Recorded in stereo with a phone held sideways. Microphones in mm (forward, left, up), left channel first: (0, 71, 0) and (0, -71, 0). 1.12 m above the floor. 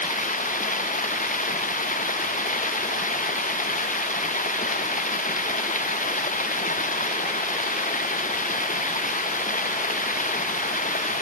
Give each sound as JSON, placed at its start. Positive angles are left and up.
{"t": 0.0, "sound": "running water", "side_deg": 70}